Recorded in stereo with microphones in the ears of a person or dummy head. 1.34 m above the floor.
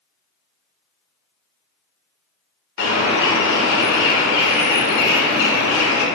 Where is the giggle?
I don't hear a giggle.